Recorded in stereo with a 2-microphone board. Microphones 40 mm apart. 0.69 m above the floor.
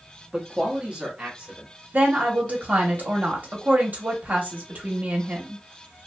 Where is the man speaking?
15° right (ahead or behind), 0.6 m; by 1.7 s 25° right (ahead or behind), 1.3 m.